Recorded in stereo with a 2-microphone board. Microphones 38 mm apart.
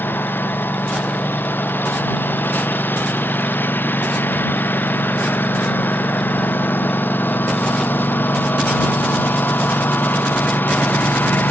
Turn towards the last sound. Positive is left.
turn(degrees=65)  # may be behind; listen again after turning